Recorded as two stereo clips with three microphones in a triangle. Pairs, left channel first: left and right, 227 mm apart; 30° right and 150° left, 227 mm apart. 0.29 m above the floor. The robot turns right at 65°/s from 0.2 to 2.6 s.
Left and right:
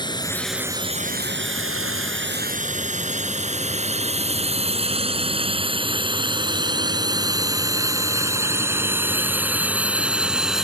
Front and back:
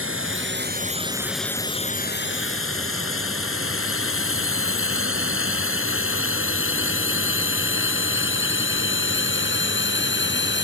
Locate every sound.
0.0 s a drone: 160° left; by 10.6 s straight ahead